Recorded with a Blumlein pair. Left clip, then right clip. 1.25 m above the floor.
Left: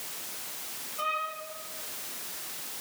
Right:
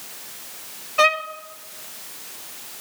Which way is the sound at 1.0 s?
40° right.